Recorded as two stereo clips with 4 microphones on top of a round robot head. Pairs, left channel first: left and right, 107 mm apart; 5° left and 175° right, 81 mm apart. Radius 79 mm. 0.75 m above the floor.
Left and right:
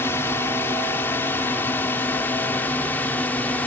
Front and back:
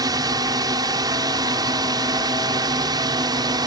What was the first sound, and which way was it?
A drone, 160° left.